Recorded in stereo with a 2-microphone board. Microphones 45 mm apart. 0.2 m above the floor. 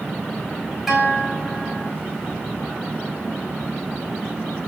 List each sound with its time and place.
0.9 s a guitar: 5° right (ahead or behind), 4 m